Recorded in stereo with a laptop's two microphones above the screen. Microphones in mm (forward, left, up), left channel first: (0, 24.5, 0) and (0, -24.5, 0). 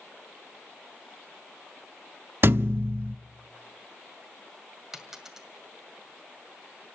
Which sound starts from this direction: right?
A thud, at 2.4 s.